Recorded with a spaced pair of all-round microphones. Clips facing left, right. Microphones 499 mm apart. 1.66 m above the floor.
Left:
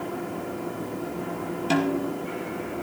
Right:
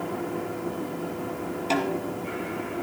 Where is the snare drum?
35° left (ahead or behind), 2 m.